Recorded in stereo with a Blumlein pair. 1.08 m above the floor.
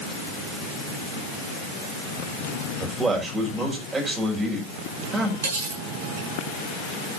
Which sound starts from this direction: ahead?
A man speaking, at 2.8 s.